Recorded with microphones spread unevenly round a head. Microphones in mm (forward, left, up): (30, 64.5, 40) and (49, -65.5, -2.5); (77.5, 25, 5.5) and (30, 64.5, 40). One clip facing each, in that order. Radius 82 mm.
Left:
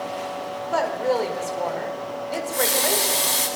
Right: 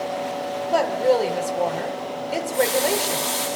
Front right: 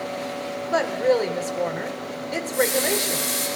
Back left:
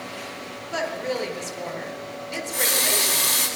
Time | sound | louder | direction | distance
0.7 | a woman speaking | right 3 dB, front right 7 dB | 10° right | 4 m
2.3 | a running tap | right 4 dB, front right 6 dB | 155° left | 7 m